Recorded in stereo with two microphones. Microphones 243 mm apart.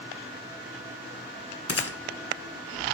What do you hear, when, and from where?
1.7 s a gunshot: 65° left (ahead or behind), 0.8 m